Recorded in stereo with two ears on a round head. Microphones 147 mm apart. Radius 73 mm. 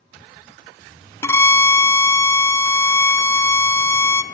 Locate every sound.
1.2 s a violin: 20° left (ahead or behind), 0.8 m